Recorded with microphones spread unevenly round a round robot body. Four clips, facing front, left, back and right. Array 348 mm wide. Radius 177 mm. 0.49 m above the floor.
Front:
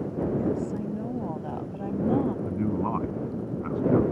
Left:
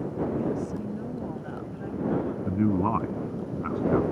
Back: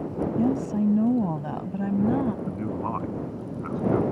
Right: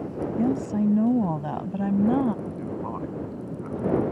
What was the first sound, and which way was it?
A woman speaking, 135° right.